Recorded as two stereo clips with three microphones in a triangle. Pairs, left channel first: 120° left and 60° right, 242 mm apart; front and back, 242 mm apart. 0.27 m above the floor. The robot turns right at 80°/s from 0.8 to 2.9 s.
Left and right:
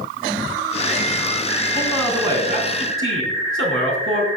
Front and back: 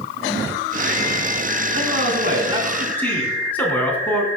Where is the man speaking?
175° right, 3.5 m; by 4.3 s 85° right, 3.5 m.